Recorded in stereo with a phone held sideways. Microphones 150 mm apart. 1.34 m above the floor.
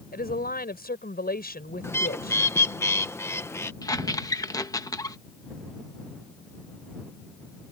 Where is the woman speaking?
75° left (ahead or behind).